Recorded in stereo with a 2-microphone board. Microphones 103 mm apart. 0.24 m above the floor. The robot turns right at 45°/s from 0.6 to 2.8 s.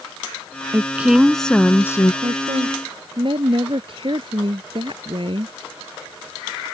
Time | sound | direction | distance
0.7 | a woman speaking | 25° right | ?
2.2 | a woman speaking | 70° right (ahead or behind) | ?